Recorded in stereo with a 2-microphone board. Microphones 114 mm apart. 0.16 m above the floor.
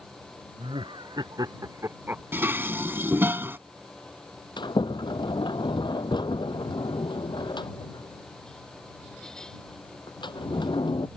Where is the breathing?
No breathing in this recording.